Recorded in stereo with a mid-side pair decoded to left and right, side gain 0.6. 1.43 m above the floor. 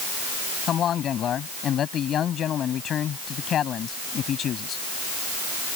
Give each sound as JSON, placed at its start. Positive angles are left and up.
{"t": 0.7, "sound": "a man speaking", "azimuth_deg": 45}